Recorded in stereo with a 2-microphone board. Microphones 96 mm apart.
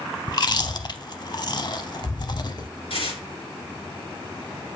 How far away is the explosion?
No explosion in this recording.